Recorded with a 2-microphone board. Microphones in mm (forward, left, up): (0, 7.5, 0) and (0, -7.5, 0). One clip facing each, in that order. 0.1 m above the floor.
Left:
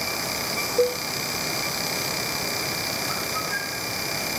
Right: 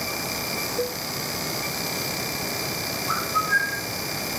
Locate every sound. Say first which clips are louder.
0.8 s a cowbell: left 11 dB; 70° left (ahead or behind)
3.1 s a bird: right 4 dB; 35° right (ahead or behind)